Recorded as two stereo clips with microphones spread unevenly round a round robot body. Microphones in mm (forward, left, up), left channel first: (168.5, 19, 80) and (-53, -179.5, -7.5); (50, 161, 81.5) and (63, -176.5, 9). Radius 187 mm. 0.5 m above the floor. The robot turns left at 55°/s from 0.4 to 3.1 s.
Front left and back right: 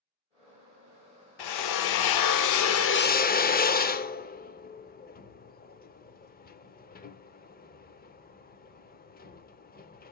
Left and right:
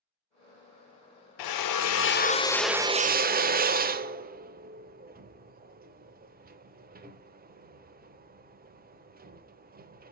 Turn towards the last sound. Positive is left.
turn(degrees=-25)